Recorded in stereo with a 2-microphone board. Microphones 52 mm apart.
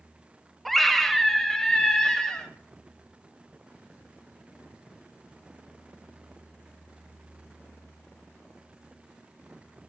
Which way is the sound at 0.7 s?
5° left (ahead or behind).